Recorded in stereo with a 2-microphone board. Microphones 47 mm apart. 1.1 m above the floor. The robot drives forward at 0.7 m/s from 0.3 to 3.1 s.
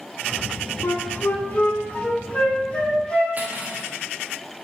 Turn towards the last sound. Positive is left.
turn(degrees=-40)  # may be behind; listen again after turning